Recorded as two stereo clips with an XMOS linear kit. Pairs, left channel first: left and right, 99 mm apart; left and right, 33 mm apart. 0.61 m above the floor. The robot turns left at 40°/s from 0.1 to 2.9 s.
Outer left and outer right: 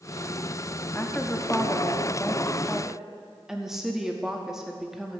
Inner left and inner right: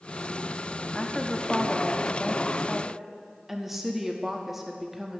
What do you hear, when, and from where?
0.9 s a woman speaking: 20° left (ahead or behind), 0.8 m; by 5.2 s 5° right (ahead or behind), 0.8 m